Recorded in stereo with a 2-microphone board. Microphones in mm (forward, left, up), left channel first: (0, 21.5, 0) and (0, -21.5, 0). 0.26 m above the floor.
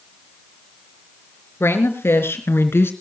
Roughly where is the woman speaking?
Left.